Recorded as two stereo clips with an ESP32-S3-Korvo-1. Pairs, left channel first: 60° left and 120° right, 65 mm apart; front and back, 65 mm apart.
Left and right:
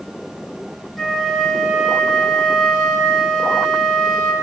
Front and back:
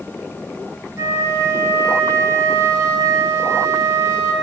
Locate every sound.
1.0 s a flute: 145° left, 1.8 m